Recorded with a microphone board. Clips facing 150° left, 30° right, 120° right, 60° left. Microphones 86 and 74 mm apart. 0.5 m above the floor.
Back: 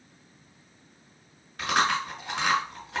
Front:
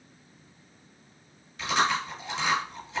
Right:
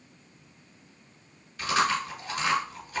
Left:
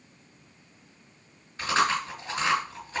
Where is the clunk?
I don't hear a clunk.